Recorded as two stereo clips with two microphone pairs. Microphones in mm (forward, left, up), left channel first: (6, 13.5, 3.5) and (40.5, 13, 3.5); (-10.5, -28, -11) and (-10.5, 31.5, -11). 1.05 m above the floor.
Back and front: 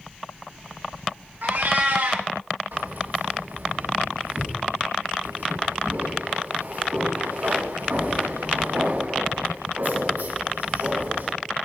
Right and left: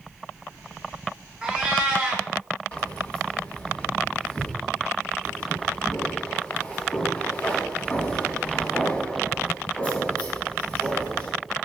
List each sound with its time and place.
1.4 s a cat meowing: 15° left, 4 m
2.7 s keys jangling: 20° right, 4 m